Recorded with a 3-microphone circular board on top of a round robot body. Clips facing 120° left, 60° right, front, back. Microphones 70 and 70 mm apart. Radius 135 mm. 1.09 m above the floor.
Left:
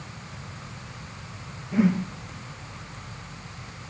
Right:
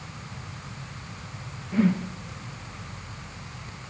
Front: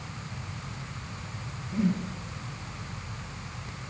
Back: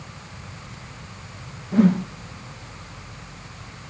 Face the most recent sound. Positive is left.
turn(degrees=-160)